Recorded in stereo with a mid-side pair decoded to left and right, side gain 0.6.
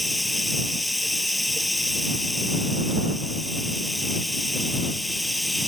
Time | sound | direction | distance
0.0 | running water | 5° left | ?